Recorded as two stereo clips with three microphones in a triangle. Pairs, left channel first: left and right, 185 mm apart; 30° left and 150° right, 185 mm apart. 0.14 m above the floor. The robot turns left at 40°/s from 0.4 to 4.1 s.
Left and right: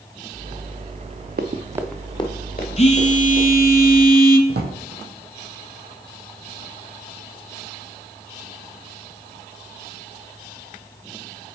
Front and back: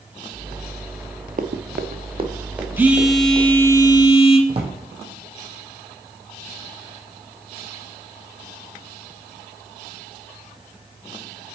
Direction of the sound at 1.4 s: 110° right.